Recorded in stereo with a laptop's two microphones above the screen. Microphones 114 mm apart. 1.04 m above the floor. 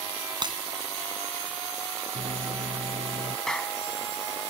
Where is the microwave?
70° right (ahead or behind).